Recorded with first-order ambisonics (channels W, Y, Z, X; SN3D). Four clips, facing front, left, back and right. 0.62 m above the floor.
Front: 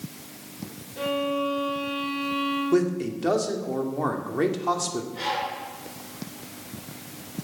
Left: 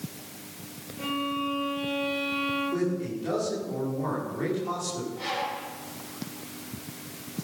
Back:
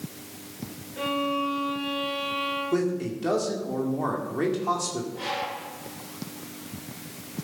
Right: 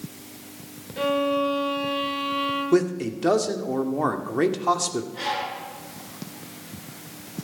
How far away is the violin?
About 2.5 m.